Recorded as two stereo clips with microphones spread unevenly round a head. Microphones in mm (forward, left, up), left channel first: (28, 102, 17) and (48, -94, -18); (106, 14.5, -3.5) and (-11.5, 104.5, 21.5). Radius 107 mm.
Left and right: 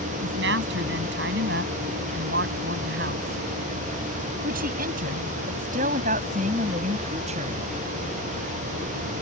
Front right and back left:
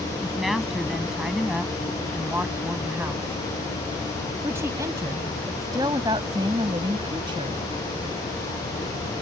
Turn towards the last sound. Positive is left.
turn(degrees=-150)